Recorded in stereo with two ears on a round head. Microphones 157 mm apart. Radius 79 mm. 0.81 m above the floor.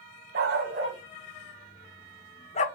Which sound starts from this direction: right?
A dog barking, at 0.3 s.